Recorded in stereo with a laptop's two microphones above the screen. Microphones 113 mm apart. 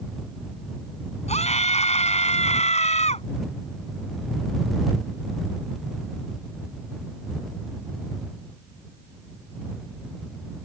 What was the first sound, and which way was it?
A scream, 75° left (ahead or behind).